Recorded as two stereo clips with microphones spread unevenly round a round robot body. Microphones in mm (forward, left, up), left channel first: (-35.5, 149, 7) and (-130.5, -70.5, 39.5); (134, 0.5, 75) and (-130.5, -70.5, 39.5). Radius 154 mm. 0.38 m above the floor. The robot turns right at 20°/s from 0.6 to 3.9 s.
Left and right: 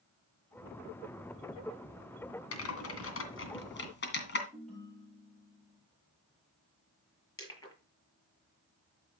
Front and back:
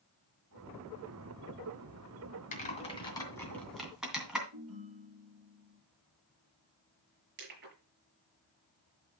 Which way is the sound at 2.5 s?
80° left.